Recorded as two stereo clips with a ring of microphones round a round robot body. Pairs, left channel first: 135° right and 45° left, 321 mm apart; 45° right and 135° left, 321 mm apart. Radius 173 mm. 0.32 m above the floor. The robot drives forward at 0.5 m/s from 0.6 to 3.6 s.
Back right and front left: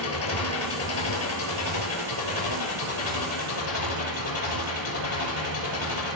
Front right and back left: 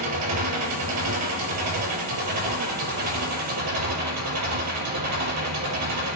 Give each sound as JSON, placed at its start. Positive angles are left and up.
{"t": 0.0, "sound": "an engine running", "azimuth_deg": 180, "distance_m": 6.0}